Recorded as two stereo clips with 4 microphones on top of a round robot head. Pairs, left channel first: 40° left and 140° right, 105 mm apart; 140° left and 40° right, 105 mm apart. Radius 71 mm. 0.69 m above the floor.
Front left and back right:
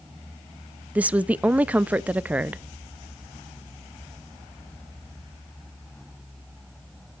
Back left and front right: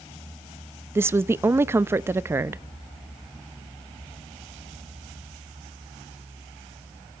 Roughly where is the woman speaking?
Right.